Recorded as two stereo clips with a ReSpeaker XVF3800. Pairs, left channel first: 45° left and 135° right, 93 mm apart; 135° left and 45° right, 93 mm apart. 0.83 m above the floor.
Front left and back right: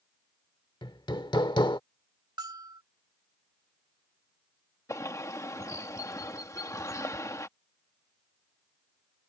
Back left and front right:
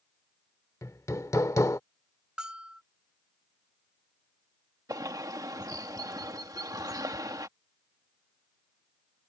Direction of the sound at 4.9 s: 5° right.